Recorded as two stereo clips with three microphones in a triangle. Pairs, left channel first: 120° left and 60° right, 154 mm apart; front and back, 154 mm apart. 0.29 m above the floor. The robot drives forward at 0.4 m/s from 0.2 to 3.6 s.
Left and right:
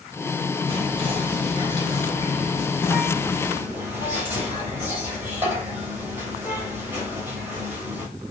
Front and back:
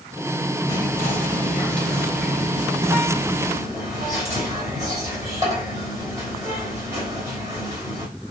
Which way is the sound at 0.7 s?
50° right.